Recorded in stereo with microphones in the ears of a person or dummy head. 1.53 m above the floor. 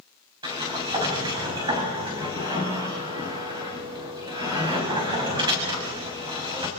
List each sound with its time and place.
0.4 s a sliding door: 20° right (ahead or behind), 6 m